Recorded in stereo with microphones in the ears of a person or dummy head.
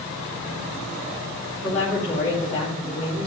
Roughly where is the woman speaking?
Centre.